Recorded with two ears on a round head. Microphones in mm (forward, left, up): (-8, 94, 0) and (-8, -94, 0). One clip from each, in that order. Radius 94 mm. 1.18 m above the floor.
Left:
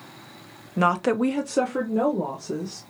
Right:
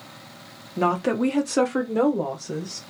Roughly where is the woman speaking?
Left.